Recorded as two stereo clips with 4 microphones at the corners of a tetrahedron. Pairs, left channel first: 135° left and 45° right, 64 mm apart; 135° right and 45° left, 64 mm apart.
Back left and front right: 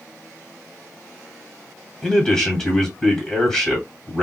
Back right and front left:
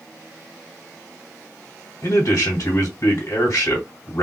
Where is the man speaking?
150° right, 1.4 m.